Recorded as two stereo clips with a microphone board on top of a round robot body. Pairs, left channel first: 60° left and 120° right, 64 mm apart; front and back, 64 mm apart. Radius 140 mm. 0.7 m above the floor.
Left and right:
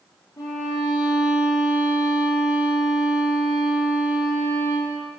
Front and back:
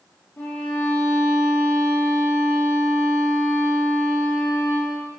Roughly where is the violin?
Ahead left.